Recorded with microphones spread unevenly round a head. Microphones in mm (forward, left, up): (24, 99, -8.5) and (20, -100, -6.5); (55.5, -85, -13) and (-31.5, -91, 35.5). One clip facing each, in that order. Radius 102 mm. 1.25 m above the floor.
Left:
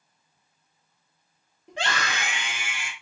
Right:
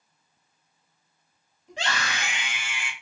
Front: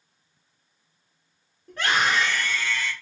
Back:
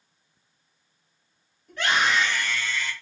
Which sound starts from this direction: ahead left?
A scream, at 1.7 s.